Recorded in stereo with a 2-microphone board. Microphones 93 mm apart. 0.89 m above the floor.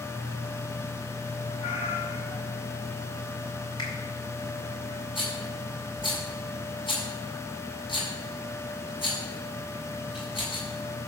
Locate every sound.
1.6 s a cat meowing: 65° left (ahead or behind), 4.5 m
3.8 s a finger snap: 50° left (ahead or behind), 4 m
5.2 s a rattle: 60° left (ahead or behind), 5.5 m